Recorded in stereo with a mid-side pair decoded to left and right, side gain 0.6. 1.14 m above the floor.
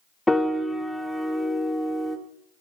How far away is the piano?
About 1.0 m.